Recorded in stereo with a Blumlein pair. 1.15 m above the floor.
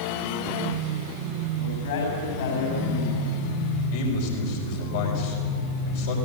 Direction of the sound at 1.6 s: 60° left.